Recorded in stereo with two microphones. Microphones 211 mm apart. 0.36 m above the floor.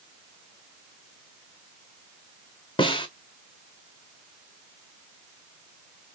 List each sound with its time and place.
2.8 s a snare drum: 25° left (ahead or behind), 0.9 m